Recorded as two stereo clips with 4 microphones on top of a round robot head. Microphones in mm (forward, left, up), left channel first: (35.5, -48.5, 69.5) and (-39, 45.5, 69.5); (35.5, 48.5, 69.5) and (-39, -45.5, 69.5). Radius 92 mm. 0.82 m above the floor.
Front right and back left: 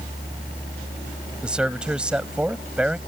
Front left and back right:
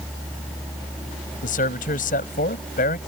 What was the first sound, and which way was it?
A man speaking, 45° left.